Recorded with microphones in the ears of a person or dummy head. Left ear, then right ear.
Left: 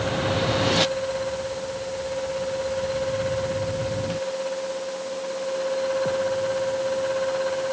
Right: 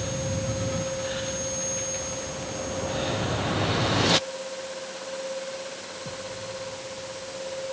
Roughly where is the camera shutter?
I don't hear a camera shutter.